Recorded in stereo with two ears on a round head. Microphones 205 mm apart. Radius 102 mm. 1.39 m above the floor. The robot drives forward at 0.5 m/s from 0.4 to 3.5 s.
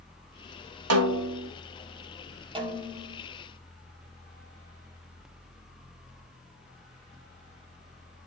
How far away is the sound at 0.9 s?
About 2.5 m.